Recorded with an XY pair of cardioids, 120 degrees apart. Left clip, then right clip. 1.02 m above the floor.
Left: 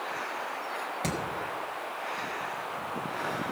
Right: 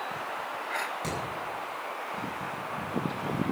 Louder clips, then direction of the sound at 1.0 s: Left 1 dB; 30° left.